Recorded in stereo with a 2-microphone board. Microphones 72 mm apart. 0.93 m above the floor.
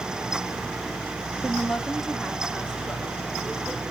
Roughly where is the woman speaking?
Centre.